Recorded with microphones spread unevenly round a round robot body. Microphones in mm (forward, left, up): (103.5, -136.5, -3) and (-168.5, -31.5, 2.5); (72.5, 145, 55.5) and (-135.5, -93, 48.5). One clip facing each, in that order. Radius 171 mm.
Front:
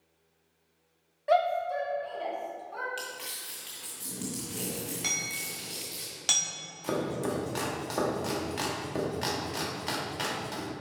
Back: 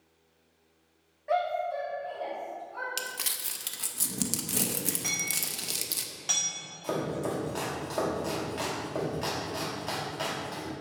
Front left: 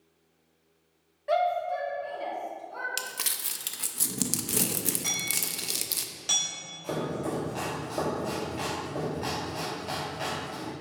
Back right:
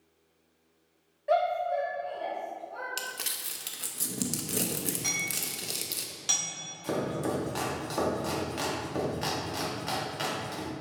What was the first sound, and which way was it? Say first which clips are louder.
A shout: front 3 dB, even; 25° right.